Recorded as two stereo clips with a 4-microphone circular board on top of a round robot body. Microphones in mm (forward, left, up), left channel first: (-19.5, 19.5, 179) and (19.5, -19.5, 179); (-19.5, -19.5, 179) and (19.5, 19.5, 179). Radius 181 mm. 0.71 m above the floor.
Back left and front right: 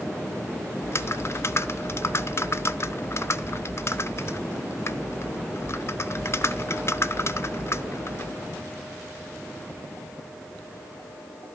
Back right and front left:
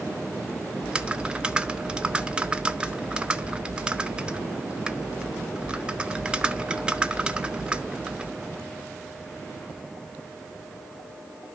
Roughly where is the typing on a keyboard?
Behind left.